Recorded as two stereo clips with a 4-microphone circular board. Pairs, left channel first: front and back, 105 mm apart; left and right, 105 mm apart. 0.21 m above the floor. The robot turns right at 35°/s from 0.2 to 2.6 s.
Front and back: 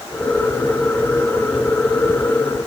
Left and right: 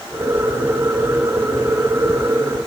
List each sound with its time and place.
Only background noise.